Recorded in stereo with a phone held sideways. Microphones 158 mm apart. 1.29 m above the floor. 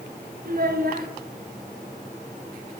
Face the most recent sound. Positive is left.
turn(degrees=-60)  # may be behind; listen again after turning